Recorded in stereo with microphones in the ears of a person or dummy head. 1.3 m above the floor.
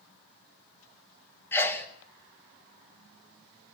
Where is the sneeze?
15° left (ahead or behind), 1.7 m.